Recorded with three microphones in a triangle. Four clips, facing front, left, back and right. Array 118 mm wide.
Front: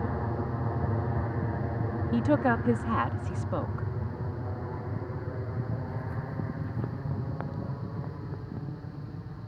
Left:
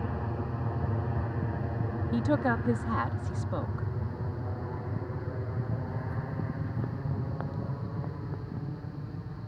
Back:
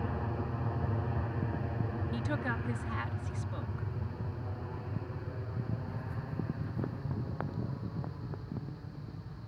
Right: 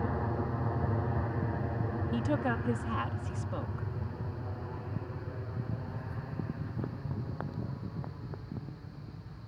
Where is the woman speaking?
15° left.